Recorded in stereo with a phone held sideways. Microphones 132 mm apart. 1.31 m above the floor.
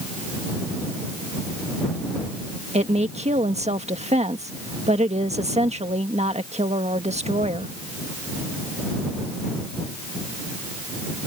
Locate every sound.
2.7 s a woman speaking: 55° right (ahead or behind)